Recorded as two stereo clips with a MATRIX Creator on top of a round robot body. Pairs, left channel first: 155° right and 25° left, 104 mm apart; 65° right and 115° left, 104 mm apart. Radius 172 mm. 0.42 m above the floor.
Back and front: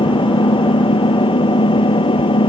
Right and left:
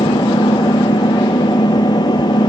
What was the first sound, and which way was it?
An engine running, 120° right.